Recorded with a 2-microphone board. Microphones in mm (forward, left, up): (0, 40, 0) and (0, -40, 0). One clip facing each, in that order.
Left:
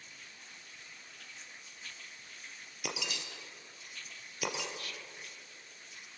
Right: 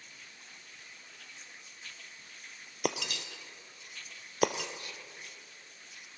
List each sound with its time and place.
2.8 s breaking glass: 55° right (ahead or behind), 1.1 m
4.8 s whispering: 20° right (ahead or behind), 0.6 m